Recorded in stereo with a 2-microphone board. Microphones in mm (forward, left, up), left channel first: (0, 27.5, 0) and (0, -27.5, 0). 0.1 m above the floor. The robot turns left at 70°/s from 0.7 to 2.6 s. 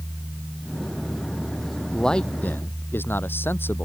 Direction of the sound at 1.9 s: 175° left.